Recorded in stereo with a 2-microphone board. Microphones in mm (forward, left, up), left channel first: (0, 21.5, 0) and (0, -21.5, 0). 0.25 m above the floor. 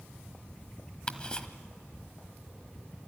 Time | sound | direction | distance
1.1 | ticking | 25° left (ahead or behind) | 1.2 m